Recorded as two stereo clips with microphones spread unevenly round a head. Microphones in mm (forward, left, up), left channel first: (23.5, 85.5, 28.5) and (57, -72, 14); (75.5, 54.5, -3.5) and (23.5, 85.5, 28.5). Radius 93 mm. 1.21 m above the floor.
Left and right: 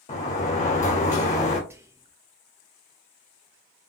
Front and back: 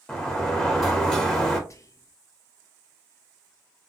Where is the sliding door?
60° left, 1.8 m.